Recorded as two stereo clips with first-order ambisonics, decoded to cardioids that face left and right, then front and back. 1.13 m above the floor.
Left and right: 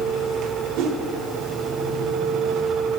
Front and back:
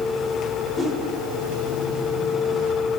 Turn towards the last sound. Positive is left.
turn(degrees=-100)